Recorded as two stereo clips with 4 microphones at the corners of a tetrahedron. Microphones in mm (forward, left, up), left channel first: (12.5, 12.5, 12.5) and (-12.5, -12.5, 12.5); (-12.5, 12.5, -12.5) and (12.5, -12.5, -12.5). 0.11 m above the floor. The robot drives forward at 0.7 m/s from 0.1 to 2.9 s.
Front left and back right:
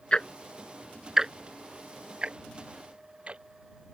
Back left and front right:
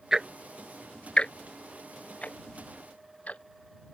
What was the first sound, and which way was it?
Ticking, 15° left.